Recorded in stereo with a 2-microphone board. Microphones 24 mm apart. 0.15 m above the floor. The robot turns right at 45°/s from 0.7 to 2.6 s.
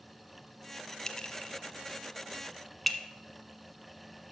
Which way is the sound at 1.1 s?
25° left (ahead or behind).